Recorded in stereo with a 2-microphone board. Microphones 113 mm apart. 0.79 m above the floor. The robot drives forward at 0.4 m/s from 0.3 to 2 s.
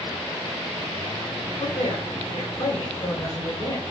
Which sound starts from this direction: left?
A man speaking, at 1.6 s.